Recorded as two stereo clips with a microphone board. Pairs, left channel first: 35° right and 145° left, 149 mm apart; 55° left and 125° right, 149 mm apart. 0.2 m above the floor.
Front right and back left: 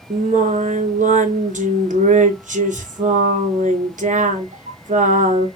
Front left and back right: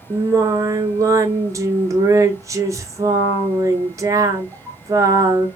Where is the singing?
170° left, 0.7 m.